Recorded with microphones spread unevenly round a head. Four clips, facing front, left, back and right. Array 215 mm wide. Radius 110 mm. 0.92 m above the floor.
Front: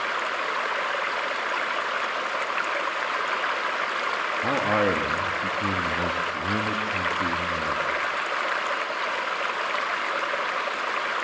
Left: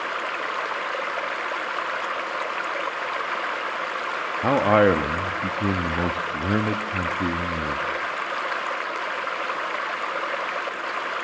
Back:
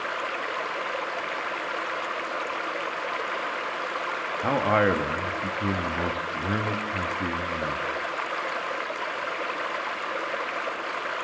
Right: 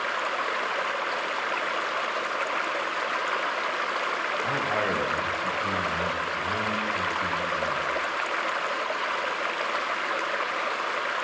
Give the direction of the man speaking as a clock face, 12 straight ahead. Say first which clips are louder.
Left 13 dB, back 2 dB; 9 o'clock.